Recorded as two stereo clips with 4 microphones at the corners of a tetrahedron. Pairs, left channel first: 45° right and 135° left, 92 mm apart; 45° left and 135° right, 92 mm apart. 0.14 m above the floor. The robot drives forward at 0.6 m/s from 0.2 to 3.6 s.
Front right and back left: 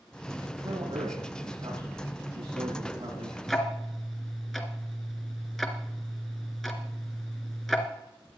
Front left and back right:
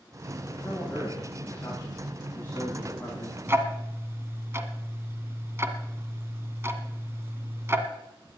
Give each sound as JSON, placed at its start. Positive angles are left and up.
{"t": 0.6, "sound": "a man speaking", "azimuth_deg": 110, "distance_m": 9.0}
{"t": 3.5, "sound": "ticking", "azimuth_deg": -125, "distance_m": 1.4}